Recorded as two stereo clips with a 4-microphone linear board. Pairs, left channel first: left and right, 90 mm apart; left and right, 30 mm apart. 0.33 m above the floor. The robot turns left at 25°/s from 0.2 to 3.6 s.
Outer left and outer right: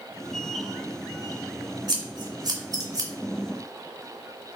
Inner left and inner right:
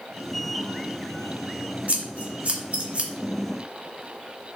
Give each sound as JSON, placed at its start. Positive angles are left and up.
{"t": 1.9, "sound": "scissors", "side_deg": -50, "distance_m": 0.5}